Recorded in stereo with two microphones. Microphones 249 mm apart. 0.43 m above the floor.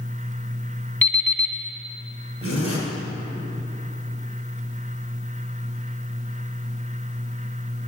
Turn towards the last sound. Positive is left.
turn(degrees=65)  # may be behind; listen again after turning